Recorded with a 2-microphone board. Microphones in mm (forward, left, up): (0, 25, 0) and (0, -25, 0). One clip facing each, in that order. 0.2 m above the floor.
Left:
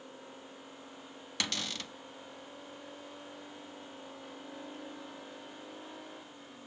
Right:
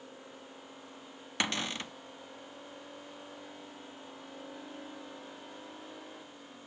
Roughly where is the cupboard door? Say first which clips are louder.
Right 4 dB; right.